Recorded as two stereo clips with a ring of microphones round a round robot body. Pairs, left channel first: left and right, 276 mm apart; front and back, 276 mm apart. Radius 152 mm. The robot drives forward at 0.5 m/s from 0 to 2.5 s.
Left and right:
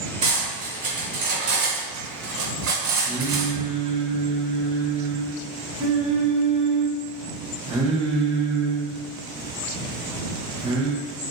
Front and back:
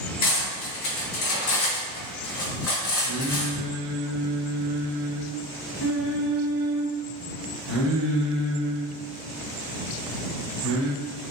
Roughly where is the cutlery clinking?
Ahead right.